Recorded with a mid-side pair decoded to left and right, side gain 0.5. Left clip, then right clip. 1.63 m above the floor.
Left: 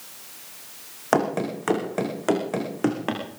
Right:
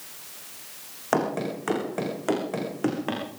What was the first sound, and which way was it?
Running footsteps, 25° left.